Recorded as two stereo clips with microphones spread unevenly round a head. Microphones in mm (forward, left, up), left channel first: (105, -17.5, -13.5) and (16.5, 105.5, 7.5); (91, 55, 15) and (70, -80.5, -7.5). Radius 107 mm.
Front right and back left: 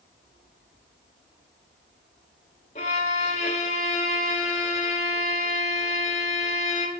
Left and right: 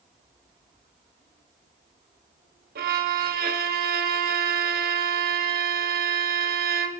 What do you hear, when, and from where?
2.8 s a violin: 115° right, 1.4 m